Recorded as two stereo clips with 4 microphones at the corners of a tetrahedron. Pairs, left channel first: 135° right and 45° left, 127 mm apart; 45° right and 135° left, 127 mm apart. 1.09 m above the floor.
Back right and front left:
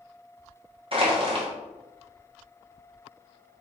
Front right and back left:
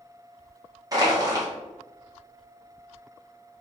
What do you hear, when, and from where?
0.9 s crushing: 80° left, 1.2 m